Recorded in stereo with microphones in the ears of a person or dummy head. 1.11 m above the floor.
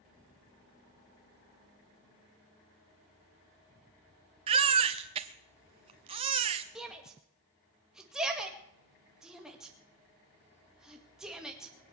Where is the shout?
5° right (ahead or behind), 2.0 m.